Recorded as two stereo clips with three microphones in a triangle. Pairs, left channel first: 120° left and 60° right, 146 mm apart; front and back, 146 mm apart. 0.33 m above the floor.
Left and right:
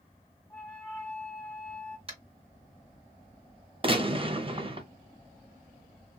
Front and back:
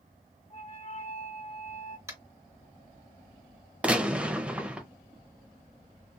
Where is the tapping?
110° right, 1.7 m.